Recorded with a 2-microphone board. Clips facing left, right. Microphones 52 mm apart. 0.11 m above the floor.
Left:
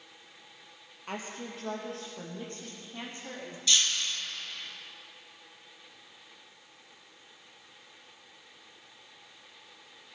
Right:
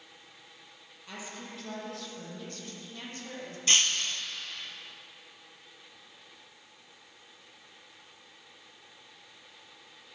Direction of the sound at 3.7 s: 40° right (ahead or behind).